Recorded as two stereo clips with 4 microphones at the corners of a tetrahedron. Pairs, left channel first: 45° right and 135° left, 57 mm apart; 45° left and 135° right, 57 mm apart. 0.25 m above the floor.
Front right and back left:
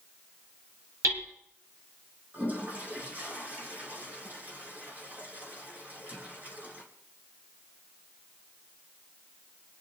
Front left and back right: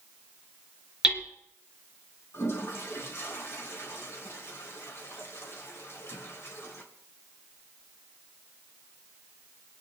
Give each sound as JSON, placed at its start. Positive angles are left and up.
{"t": 1.0, "sound": "hammering", "azimuth_deg": 150, "distance_m": 2.5}
{"t": 2.3, "sound": "a toilet flushing", "azimuth_deg": 80, "distance_m": 3.0}